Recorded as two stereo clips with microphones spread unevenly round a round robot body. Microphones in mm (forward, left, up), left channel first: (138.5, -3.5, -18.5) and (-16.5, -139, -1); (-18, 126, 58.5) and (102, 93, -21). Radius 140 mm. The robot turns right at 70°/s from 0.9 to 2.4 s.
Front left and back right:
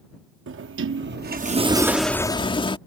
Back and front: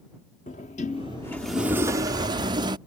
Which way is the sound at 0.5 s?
125° right.